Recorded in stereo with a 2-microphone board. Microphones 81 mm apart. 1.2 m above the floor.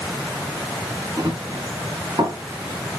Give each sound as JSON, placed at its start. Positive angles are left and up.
{"t": 1.2, "sound": "running footsteps", "side_deg": -50, "distance_m": 5.0}